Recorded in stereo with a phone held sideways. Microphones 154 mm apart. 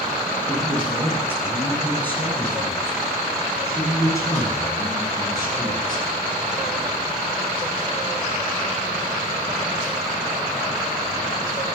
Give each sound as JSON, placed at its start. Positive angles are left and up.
{"t": 0.5, "sound": "a man speaking", "side_deg": 5, "distance_m": 10.0}